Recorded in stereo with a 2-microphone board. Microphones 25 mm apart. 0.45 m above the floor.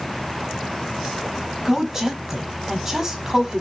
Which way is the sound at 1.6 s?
10° right (ahead or behind).